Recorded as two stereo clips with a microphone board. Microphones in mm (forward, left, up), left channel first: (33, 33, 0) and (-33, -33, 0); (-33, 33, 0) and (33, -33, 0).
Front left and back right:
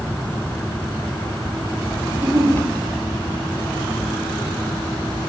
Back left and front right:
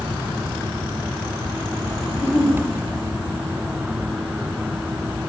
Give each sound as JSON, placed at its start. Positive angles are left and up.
{"t": 2.1, "sound": "a giggle", "azimuth_deg": 150, "distance_m": 8.0}